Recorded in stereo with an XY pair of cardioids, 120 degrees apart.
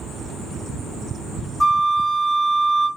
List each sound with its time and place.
1.6 s a flute: 5° left, 1.8 m